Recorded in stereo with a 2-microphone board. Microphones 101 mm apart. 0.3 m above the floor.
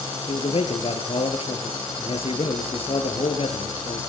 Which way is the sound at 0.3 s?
70° left (ahead or behind).